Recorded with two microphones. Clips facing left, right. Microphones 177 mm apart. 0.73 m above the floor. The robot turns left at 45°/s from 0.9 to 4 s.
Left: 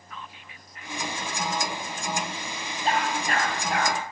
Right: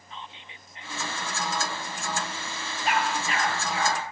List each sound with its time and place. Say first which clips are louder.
0.1 s whispering: even; 25° right (ahead or behind), 0.9 m; by 1.2 s 30° right (ahead or behind), 0.9 m
2.9 s a dog barking: left 1 dB; 30° left (ahead or behind), 5.5 m; by 4.0 s 80° left, 5.5 m